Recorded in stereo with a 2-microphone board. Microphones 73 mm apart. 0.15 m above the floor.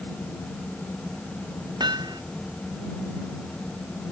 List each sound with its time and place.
1.8 s hammering: 75° right (ahead or behind)